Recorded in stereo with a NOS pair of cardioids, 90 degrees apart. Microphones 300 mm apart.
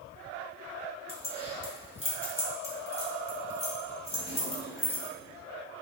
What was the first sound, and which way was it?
Keys jangling, 20° left.